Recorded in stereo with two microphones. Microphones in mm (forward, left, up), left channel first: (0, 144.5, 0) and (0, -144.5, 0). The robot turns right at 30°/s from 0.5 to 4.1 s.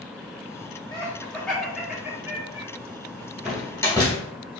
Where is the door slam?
5° right (ahead or behind), 2 m; by 4.2 s 15° left (ahead or behind), 2 m.